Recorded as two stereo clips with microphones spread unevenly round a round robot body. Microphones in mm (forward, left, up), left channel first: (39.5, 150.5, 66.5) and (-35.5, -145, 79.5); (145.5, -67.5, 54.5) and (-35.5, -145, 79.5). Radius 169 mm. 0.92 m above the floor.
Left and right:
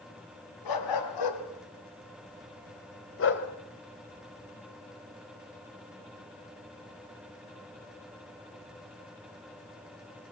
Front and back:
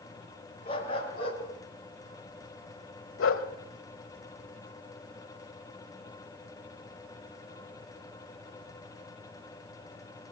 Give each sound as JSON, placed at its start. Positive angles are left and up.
{"t": 0.7, "sound": "a dog barking", "azimuth_deg": 95, "distance_m": 4.0}